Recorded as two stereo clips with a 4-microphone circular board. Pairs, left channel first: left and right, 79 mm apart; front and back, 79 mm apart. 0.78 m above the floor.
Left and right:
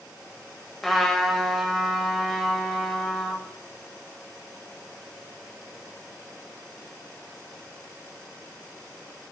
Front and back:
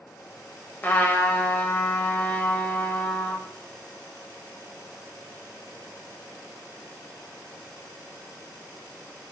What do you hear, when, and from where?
0.8 s a trumpet: 5° left, 0.5 m